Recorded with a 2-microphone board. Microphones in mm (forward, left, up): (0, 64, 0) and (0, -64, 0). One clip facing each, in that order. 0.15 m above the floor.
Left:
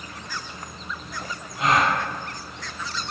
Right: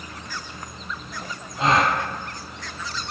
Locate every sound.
1.6 s a gasp: 30° right (ahead or behind), 0.6 m